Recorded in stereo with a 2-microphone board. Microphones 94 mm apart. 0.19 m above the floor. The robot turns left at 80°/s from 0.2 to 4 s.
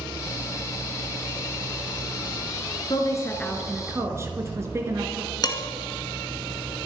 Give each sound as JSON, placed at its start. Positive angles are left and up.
{"t": 2.9, "sound": "a woman speaking", "azimuth_deg": 55, "distance_m": 2.5}
{"t": 5.4, "sound": "dishes clattering", "side_deg": 45, "distance_m": 1.5}